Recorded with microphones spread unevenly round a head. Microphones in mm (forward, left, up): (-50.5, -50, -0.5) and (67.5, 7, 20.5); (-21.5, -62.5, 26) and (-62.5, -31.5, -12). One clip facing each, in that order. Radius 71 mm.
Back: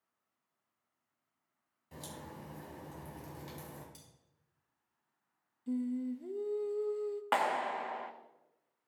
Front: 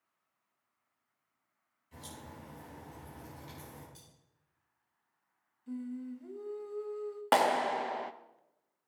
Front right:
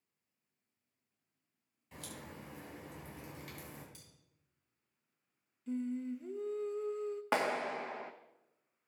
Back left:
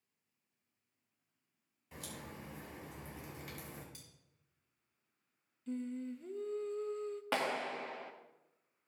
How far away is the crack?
About 6 m.